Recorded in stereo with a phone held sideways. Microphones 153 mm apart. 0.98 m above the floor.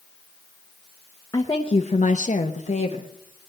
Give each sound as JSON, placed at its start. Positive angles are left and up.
{"t": 1.3, "sound": "a woman speaking", "side_deg": 20, "distance_m": 0.9}